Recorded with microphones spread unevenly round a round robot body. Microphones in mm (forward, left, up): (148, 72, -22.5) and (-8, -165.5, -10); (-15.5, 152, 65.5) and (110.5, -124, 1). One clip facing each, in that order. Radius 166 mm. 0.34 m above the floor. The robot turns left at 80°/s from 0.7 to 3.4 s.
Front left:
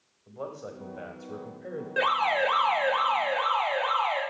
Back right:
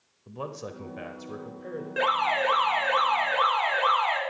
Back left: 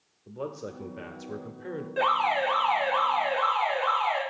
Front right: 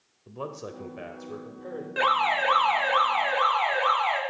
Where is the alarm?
25° right, 3.5 m; by 4.2 s 140° right, 3.5 m.